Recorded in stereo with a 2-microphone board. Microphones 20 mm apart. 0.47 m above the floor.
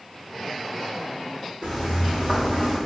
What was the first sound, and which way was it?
Footsteps, 10° right (ahead or behind).